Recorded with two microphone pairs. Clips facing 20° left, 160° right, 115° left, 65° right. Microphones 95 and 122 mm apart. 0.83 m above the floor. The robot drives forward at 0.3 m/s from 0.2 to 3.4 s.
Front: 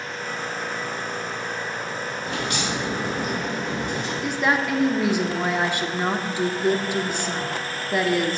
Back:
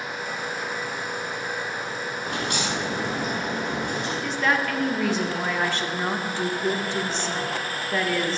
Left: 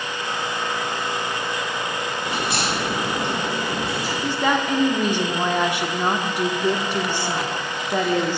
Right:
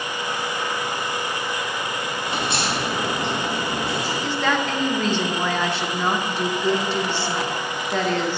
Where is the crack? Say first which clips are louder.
Even, even; 130° right, 3.5 m; by 4.1 s 135° right, 4 m.